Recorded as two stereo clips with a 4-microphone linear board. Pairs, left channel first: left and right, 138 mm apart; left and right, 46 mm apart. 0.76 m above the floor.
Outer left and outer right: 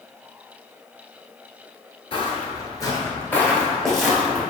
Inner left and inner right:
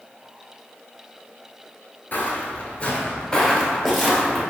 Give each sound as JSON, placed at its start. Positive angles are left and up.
{"t": 2.1, "sound": "footsteps", "side_deg": 40, "distance_m": 0.9}